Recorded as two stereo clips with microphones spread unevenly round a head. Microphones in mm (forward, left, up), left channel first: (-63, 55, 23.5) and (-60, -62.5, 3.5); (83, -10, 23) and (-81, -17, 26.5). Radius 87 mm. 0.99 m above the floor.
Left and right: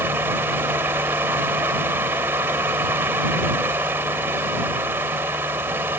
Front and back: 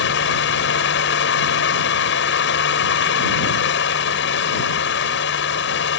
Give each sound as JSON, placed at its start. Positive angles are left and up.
{"t": 0.0, "sound": "a fan", "azimuth_deg": -10}